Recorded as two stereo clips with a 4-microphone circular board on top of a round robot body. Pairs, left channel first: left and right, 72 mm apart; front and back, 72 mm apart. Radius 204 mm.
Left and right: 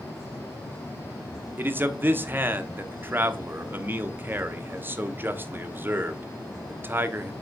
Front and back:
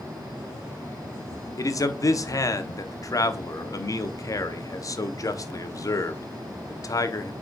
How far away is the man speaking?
About 1.3 m.